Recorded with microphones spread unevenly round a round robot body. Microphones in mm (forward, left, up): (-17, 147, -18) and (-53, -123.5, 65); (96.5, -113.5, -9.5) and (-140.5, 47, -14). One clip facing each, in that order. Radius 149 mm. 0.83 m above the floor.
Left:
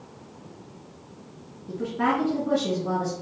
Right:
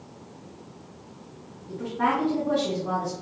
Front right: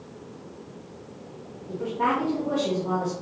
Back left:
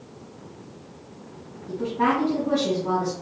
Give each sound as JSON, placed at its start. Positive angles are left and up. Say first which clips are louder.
{"t": 1.7, "sound": "a woman speaking", "louder": "left 2 dB, back left 4 dB", "azimuth_deg": 100, "distance_m": 1.9}